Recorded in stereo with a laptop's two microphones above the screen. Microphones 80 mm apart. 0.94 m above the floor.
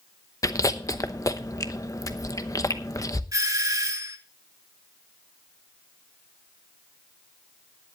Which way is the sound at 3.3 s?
45° right (ahead or behind).